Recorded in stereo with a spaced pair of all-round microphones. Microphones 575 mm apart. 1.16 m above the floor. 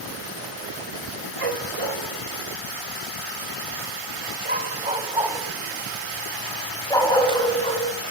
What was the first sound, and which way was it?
A dog barking, 60° right (ahead or behind).